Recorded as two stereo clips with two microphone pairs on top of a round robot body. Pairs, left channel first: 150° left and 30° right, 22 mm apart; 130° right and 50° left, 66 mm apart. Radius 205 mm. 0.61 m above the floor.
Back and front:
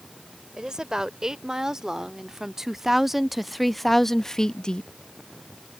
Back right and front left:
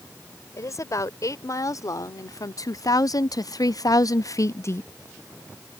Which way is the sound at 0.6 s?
90° right.